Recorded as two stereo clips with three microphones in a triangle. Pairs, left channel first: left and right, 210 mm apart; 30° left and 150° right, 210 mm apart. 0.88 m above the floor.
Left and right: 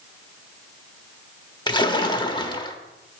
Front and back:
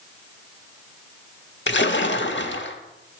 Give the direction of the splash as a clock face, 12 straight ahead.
11 o'clock.